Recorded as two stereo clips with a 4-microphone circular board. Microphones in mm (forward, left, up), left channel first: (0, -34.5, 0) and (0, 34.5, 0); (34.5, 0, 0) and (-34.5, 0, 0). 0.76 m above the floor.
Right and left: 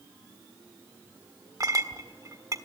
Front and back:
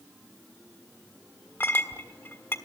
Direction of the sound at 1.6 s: 55° left.